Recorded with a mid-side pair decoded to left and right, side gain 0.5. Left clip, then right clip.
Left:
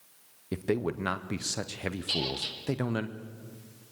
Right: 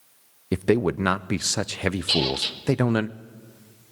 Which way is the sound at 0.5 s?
50° right.